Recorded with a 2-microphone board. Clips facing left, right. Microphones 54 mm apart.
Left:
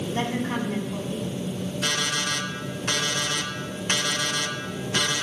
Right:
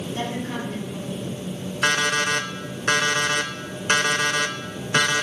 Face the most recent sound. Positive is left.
turn(degrees=-50)  # may be behind; listen again after turning